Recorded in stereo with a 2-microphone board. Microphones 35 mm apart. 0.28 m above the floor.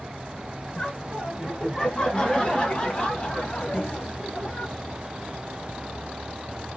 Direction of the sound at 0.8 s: 20° left (ahead or behind).